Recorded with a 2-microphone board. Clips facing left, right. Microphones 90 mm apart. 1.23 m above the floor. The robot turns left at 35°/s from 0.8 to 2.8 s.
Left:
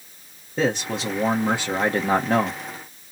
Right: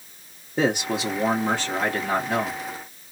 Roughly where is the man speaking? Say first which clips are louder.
Right 1 dB; behind.